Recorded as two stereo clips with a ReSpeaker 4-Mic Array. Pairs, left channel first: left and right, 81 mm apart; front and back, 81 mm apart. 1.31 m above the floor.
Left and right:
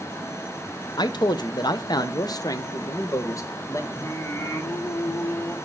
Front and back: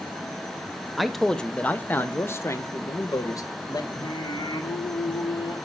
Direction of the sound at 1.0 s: 90° left.